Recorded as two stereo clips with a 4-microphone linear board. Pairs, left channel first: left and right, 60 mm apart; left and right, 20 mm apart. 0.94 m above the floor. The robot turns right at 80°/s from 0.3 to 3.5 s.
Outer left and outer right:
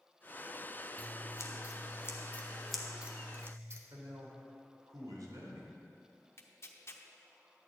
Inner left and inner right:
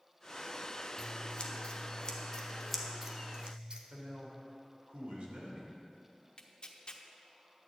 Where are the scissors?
30° left (ahead or behind), 0.9 m; by 3.8 s 45° right (ahead or behind), 0.9 m.